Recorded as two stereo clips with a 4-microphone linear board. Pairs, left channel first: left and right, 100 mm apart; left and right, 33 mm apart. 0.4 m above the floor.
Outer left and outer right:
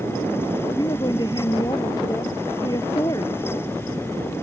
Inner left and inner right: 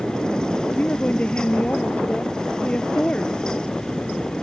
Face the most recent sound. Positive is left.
turn(degrees=35)  # may be behind; listen again after turning